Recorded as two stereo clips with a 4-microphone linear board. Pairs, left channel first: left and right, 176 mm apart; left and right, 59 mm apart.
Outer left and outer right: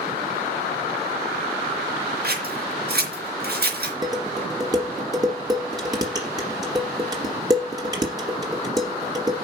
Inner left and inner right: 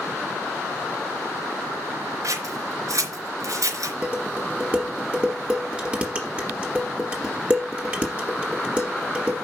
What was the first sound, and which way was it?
Scissors, 65° right (ahead or behind).